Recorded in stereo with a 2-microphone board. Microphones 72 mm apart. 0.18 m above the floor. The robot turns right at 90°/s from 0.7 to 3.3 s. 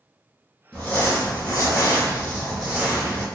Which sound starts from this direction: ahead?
Crumpling, at 0.7 s.